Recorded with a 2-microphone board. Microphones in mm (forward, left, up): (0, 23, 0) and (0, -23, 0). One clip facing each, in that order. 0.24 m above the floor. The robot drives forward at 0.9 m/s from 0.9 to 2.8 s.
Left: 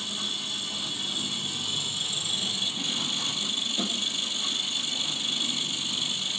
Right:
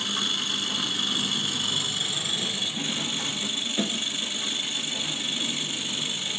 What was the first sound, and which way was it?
An engine running, 70° right (ahead or behind).